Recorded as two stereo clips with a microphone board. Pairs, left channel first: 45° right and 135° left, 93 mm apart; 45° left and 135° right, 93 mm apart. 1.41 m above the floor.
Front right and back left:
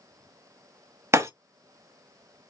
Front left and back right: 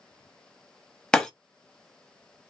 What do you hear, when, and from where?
1.1 s breaking glass: 125° left, 0.9 m